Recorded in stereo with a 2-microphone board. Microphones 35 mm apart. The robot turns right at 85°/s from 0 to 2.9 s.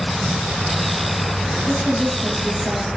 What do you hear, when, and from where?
1.7 s a woman speaking: 140° right, 1.4 m; by 3.0 s 35° right, 1.4 m